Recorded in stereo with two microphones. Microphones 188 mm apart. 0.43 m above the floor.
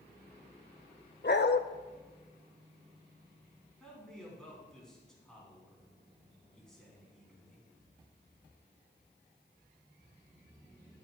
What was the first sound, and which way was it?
A dog barking, 60° left (ahead or behind).